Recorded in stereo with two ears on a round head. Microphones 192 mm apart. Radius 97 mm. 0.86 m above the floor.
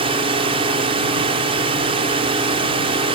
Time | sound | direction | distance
0.0 | a drone | 25° right (ahead or behind) | ?